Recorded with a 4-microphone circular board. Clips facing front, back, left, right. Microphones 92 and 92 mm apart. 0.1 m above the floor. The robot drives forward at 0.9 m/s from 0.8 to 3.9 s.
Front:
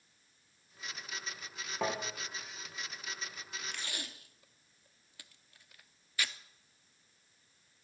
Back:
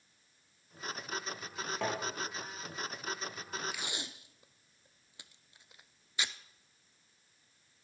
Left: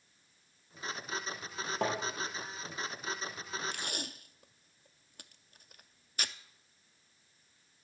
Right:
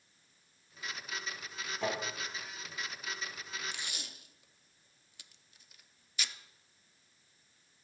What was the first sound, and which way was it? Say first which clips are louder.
Tapping: front 1 dB, left 2 dB; 80° left.